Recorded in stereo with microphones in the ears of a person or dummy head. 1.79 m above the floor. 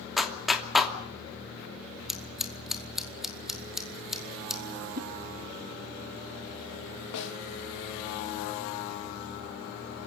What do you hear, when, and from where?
0.2 s a clap: 10° left (ahead or behind), 2.5 m
2.1 s scissors: 10° left (ahead or behind), 3 m
5.0 s a whoosh: 35° right (ahead or behind), 1.1 m
7.1 s a snare drum: 80° left, 4 m